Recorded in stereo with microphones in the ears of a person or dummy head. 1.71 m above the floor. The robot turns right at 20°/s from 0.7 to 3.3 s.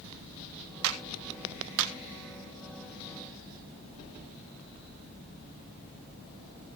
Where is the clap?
75° right (ahead or behind), 1.6 m; by 1.9 s 65° right (ahead or behind), 1.6 m.